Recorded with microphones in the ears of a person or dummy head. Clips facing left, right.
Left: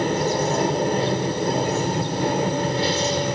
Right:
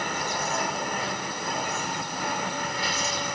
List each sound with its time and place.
0.0 s an aircraft: 30° left (ahead or behind)